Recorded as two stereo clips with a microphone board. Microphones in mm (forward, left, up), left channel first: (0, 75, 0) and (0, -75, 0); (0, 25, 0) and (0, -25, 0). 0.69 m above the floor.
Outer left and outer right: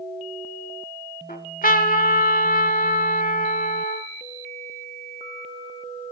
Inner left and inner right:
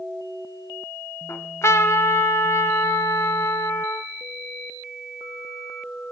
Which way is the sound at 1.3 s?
65° left (ahead or behind).